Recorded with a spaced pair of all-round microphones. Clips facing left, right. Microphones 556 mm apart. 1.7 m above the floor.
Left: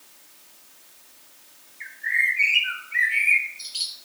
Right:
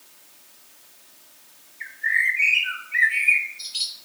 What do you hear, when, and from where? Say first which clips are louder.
1.8 s a bird: right 2 dB; 30° right (ahead or behind), 1.0 m